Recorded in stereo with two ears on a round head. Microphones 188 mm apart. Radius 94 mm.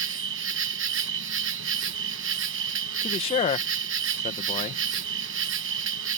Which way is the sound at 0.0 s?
65° right (ahead or behind).